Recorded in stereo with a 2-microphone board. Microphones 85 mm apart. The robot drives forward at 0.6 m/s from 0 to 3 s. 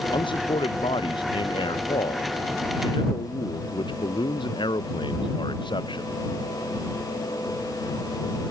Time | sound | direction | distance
0.1 | a man speaking | 75° left (ahead or behind) | ?